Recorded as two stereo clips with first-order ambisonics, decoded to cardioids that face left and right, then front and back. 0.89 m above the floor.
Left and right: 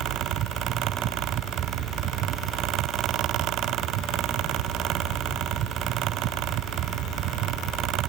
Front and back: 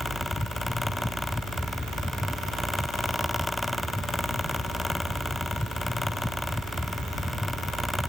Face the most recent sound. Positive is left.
No sound to turn to.